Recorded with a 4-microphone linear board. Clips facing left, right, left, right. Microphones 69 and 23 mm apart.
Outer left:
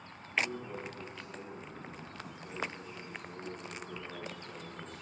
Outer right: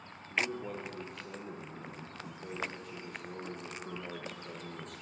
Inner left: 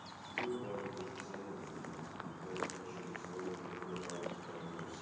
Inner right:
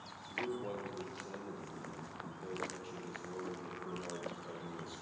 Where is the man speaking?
70° right (ahead or behind), 3.5 m.